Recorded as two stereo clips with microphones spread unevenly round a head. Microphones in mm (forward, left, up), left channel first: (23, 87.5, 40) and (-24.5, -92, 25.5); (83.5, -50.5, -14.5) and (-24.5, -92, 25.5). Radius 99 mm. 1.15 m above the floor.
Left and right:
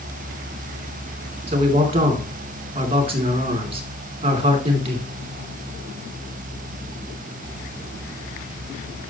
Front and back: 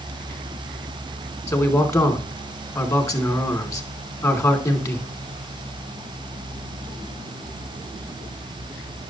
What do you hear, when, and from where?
1.5 s a man speaking: 45° right, 2.5 m